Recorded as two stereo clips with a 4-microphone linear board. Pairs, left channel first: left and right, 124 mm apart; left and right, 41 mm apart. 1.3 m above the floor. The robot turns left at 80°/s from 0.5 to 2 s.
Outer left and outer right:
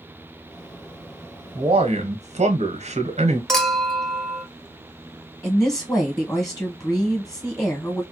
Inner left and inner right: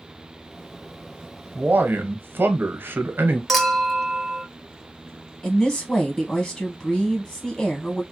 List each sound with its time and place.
1.6 s a man speaking: 35° right, 0.9 m; by 3.4 s 70° right, 0.9 m
3.5 s a clink: 5° left (ahead or behind), 0.6 m
5.4 s a woman speaking: 25° left (ahead or behind), 1.1 m